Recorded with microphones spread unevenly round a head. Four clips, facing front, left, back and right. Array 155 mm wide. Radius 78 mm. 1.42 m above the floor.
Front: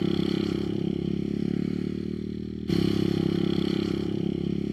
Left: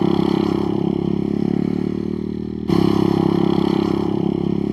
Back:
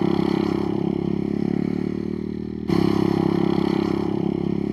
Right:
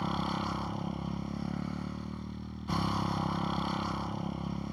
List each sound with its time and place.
0.0 s a motorcycle: 110° left